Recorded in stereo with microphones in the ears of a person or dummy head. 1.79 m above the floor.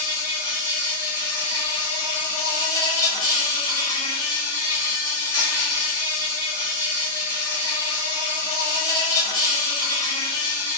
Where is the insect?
15° left (ahead or behind), 1.2 m.